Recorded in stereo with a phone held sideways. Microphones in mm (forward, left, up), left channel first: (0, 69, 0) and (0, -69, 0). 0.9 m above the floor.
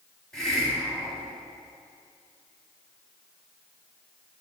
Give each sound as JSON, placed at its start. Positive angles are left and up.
{"t": 0.3, "sound": "a hiss", "side_deg": 5, "distance_m": 1.9}